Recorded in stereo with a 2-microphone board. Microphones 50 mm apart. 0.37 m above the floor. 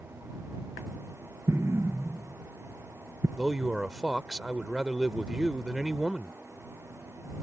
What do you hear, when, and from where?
1.5 s an explosion: 65° right (ahead or behind)
3.4 s a man speaking: 15° right (ahead or behind)